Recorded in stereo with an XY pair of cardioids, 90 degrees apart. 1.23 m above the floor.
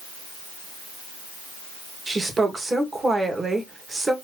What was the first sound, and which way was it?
A woman speaking, 30° right.